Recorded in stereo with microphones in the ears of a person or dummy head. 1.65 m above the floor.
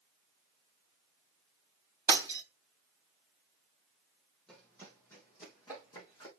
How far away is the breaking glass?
About 3 m.